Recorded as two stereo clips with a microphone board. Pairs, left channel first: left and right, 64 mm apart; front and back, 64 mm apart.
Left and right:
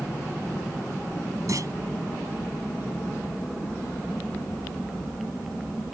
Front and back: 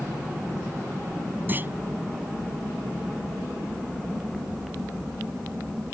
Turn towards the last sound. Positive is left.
turn(degrees=-120)